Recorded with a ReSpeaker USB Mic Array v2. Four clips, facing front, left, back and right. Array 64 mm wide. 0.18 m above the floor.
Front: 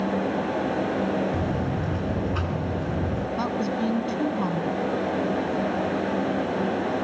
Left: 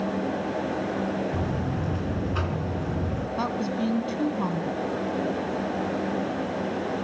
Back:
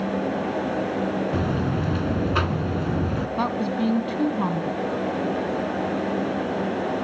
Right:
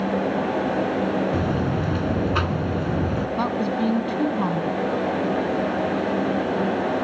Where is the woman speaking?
140° right, 1.0 m.